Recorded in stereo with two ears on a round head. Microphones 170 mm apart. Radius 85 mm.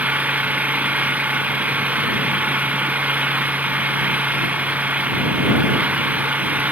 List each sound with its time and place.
0.0 s an engine running: 10° right (ahead or behind)